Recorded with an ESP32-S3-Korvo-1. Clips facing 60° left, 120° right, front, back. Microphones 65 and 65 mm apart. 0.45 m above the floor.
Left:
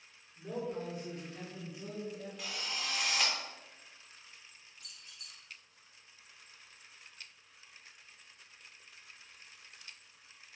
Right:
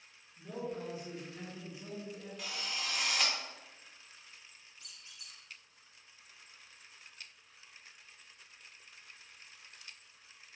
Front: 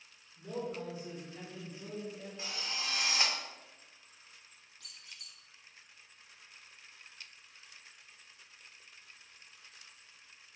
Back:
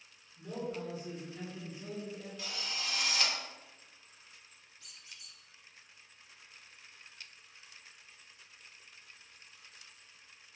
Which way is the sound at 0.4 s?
55° left.